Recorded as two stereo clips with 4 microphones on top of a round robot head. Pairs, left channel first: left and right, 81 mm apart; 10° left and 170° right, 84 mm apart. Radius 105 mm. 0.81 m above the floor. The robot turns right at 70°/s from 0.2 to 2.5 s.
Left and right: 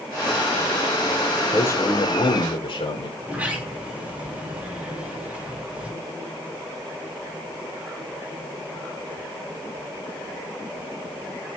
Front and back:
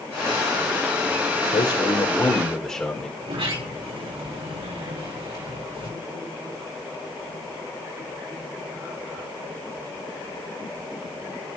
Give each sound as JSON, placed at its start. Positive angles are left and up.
{"t": 1.5, "sound": "a man speaking", "azimuth_deg": 25, "distance_m": 3.5}
{"t": 3.2, "sound": "a sliding door", "azimuth_deg": -165, "distance_m": 3.5}